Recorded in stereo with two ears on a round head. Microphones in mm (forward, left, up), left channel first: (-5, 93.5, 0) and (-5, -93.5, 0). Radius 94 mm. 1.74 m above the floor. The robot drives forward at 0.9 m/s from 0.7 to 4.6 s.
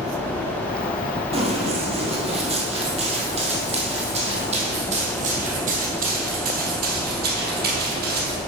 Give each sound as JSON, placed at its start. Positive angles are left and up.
{"t": 1.3, "sound": "running footsteps", "side_deg": -30, "distance_m": 2.5}